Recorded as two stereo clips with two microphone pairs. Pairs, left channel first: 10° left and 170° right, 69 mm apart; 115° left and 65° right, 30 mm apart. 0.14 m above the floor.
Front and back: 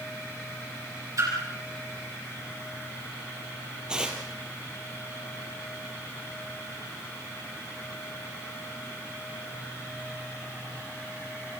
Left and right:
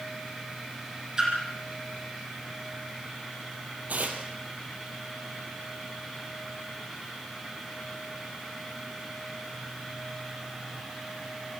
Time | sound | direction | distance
1.2 | a splash | 130° right | 7 m
3.9 | tearing paper | 90° right | 3.5 m